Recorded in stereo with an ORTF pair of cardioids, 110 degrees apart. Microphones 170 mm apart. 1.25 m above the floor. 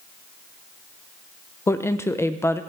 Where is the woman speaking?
15° left, 0.5 m.